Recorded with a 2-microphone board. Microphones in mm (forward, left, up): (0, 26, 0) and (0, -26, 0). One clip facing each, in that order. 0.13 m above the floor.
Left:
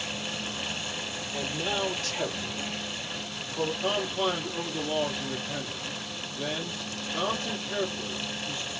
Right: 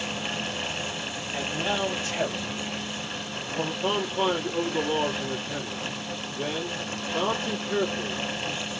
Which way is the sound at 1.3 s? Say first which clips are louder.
Right 3 dB; 20° right (ahead or behind).